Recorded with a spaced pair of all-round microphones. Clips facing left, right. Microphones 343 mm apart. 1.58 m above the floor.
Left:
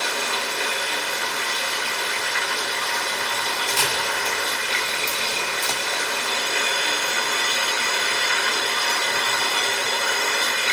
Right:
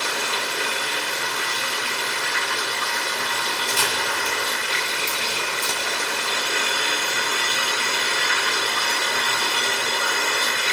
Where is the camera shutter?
20° right (ahead or behind), 1.6 m.